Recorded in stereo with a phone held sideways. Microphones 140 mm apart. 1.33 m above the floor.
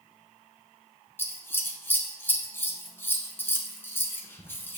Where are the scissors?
15° left (ahead or behind), 1.1 m.